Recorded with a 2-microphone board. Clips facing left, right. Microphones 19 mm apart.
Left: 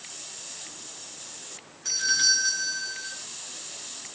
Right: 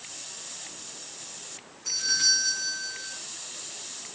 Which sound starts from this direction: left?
A doorbell, at 1.9 s.